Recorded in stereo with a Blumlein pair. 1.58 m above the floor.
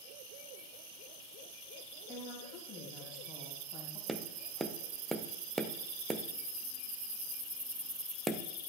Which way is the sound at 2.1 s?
10° left.